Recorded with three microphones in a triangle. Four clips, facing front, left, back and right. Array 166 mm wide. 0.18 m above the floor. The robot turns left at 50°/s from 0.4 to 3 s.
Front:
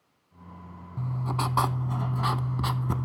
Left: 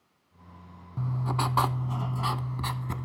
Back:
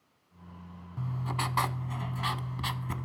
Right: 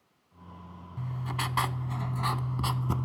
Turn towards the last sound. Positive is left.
turn(degrees=-30)